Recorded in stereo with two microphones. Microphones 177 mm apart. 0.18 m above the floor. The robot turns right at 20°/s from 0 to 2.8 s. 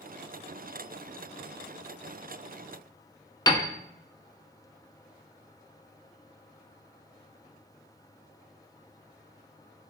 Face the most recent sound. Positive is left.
turn(degrees=25)  # may be behind; listen again after turning